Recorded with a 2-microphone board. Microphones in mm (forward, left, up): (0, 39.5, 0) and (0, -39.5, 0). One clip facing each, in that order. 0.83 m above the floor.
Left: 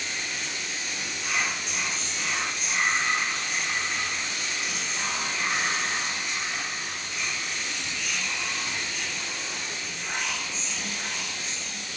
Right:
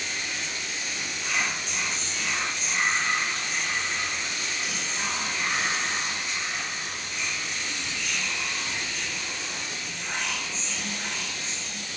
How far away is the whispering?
About 0.8 m.